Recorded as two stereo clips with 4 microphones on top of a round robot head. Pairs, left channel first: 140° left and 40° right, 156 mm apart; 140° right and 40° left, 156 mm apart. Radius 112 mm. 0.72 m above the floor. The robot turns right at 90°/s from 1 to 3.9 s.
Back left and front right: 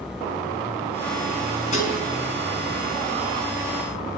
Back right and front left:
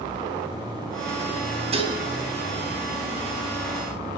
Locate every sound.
1.7 s dishes clattering: 90° left, 4.5 m; by 2.0 s 115° left, 4.5 m